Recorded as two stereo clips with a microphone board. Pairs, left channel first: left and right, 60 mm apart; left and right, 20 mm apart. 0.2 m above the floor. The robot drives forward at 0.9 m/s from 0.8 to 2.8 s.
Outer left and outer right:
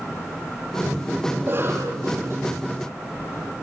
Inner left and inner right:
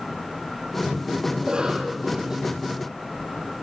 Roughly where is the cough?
Right.